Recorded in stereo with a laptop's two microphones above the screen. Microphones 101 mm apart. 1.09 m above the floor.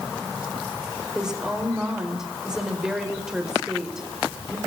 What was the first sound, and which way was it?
A woman speaking, 5° right (ahead or behind).